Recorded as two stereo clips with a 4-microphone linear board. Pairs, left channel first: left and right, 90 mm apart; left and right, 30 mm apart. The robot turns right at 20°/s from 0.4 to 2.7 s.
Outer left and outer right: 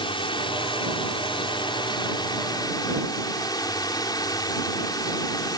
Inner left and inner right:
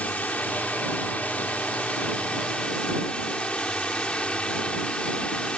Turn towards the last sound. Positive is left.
turn(degrees=130)